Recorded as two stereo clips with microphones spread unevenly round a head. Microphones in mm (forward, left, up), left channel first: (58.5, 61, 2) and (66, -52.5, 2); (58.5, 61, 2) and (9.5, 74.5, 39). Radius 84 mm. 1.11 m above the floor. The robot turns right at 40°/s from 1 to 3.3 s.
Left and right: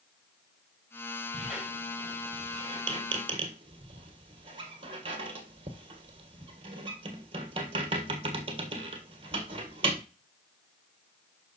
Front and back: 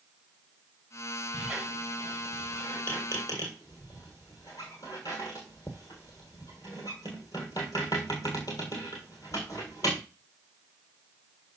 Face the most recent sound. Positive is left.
turn(degrees=-100)